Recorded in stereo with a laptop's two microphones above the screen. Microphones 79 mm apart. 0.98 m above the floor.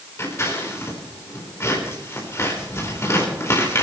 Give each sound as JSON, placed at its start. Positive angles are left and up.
{"t": 0.2, "sound": "scissors", "side_deg": 35, "distance_m": 4.5}